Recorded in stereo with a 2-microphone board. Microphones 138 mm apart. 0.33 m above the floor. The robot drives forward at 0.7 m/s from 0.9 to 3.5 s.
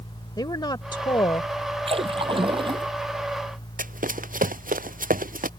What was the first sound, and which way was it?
A woman speaking, 30° left (ahead or behind).